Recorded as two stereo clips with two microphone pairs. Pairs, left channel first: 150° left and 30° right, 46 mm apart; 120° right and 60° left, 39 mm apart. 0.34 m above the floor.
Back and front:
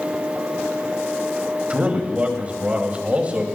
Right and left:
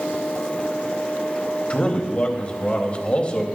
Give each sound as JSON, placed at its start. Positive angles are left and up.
{"t": 1.7, "sound": "a man speaking", "azimuth_deg": -75, "distance_m": 2.0}